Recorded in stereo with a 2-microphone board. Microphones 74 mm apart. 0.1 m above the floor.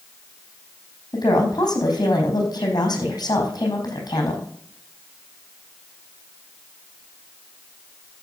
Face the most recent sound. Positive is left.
turn(degrees=65)  # may be behind; listen again after turning